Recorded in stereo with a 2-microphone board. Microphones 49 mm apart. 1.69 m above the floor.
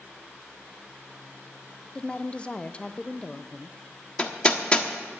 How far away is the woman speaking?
About 0.8 m.